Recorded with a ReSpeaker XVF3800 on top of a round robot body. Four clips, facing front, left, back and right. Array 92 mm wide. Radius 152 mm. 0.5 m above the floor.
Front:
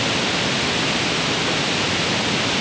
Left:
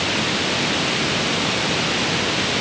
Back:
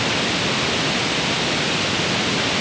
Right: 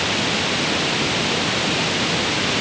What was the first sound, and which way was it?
Only background noise.